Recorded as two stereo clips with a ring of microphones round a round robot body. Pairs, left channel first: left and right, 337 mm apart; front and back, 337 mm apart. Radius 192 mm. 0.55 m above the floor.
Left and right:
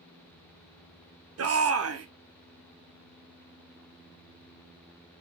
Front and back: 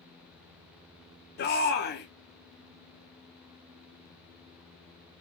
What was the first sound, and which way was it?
A shout, 55° right.